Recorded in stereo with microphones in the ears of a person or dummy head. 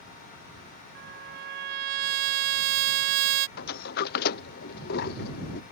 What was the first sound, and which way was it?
A trumpet, 55° right (ahead or behind).